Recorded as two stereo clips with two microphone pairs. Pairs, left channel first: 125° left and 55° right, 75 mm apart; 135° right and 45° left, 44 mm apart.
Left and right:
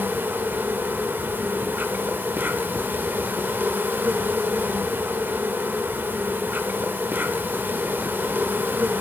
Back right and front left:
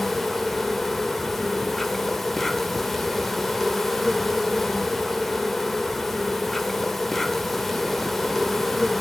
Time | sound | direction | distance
0.0 | an insect | 50° right | 1.2 m